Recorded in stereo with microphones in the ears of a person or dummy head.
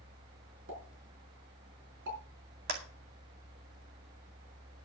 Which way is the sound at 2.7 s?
50° right (ahead or behind).